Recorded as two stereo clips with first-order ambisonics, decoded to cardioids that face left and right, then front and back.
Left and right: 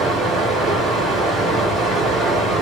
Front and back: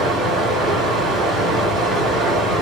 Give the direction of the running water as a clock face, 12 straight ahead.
5 o'clock.